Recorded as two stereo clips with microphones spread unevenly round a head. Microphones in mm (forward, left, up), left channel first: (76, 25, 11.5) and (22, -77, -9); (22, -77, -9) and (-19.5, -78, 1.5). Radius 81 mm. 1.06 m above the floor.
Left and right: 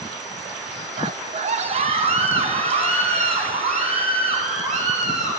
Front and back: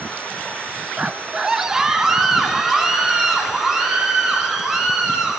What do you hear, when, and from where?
1.0 s a scream: 110° right, 0.8 m; by 5.3 s 95° right, 7 m